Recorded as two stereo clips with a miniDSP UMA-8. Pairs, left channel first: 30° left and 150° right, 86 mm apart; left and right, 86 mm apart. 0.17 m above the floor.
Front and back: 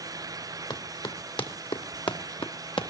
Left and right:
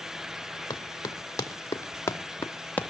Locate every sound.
0.7 s running footsteps: 45° left, 3.5 m; by 2.9 s 20° left, 2 m